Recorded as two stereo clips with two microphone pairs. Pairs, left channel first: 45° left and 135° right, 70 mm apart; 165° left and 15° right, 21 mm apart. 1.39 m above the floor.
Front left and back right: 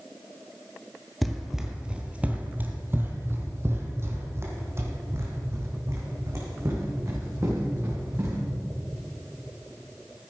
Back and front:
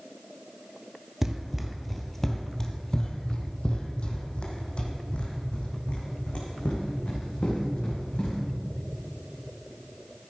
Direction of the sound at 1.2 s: 45° right.